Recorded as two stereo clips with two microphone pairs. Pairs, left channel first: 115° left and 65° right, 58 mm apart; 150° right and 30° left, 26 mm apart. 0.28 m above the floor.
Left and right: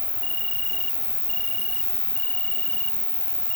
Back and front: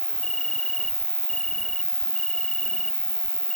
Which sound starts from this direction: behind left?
An insect, at 0.0 s.